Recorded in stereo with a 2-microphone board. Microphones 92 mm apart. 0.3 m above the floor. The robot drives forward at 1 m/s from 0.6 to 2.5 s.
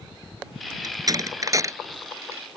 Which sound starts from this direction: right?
A door slam, at 0.8 s.